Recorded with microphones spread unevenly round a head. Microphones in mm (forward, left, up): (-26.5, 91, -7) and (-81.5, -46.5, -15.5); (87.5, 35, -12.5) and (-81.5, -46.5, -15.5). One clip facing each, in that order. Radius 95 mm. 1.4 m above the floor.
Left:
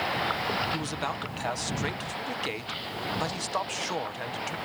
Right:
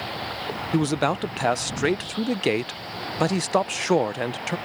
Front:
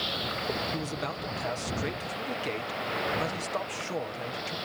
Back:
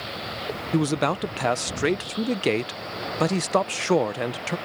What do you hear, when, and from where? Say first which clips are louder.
0.7 s a man speaking: right 11 dB, back 11 dB; 140° right